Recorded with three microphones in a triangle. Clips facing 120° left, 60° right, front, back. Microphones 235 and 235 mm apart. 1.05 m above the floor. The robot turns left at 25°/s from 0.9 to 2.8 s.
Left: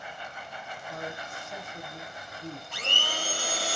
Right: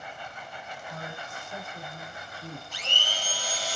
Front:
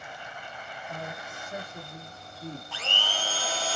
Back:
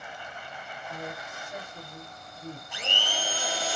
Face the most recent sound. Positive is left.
turn(degrees=105)